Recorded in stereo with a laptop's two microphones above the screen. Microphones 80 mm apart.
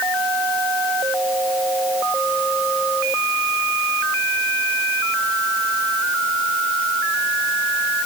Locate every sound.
Only background noise.